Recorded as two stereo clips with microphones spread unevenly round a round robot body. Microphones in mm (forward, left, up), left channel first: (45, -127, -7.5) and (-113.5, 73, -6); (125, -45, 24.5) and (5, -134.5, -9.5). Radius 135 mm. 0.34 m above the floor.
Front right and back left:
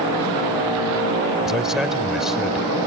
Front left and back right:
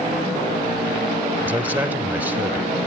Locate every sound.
1.4 s a man speaking: 145° right, 0.9 m